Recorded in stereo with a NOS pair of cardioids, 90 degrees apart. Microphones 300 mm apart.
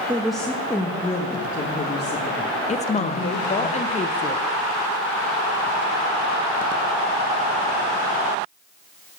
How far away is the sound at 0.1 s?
About 1.1 m.